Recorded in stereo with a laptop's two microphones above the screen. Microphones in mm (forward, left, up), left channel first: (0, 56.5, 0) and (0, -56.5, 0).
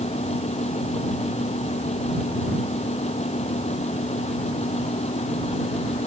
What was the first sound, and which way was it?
A fan, 70° left (ahead or behind).